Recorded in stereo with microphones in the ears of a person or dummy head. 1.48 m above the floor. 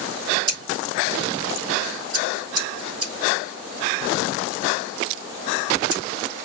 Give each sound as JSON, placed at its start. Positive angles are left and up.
{"t": 0.5, "sound": "scissors", "side_deg": -25, "distance_m": 3.0}